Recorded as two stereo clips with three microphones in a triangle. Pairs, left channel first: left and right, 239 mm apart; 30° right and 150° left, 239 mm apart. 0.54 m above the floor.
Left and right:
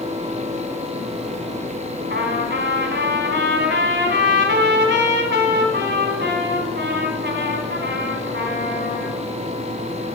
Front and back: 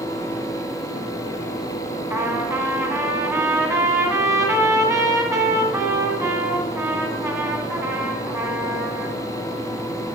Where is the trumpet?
130° right, 1.7 m.